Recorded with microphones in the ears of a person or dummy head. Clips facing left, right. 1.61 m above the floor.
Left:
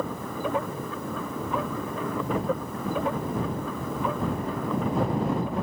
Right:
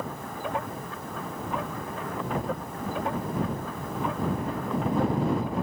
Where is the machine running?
75° left (ahead or behind).